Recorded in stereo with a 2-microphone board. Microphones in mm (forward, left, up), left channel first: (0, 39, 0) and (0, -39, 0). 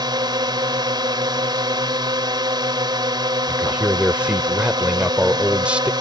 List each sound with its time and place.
0.0 s a drone: 70° right (ahead or behind)
3.5 s a man speaking: 15° right (ahead or behind)